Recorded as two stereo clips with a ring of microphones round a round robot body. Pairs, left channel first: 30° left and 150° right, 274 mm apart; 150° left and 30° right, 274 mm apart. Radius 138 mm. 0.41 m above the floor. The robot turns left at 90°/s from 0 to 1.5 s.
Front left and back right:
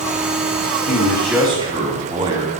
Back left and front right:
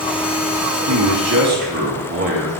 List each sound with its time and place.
0.9 s a man speaking: 20° right, 3.5 m; by 2.5 s 80° right, 3.5 m